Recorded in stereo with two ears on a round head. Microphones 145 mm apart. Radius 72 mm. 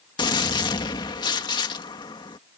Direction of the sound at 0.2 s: 30° left (ahead or behind).